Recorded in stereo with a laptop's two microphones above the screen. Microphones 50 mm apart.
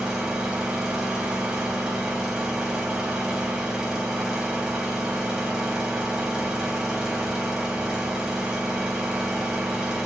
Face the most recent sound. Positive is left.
turn(degrees=-15)  # may be behind; listen again after turning